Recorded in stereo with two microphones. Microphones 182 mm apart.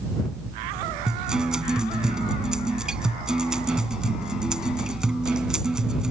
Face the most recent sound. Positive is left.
turn(degrees=-5)  # may be behind; listen again after turning